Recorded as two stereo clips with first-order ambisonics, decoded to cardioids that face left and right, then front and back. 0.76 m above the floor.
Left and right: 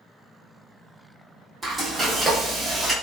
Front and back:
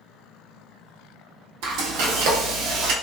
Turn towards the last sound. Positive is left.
turn(degrees=-170)